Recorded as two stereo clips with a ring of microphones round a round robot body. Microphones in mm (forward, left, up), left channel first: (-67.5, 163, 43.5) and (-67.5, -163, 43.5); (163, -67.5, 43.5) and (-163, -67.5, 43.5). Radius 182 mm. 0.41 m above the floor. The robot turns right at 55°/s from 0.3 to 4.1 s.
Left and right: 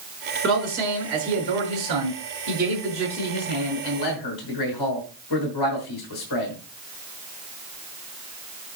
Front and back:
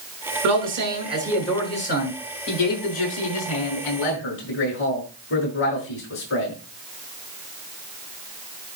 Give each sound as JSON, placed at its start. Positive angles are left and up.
{"t": 0.4, "sound": "a man speaking", "azimuth_deg": -145, "distance_m": 6.0}